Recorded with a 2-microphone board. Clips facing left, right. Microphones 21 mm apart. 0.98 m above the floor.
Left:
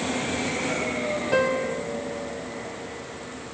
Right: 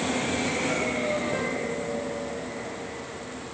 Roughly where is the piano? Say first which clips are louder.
Left 5 dB; left.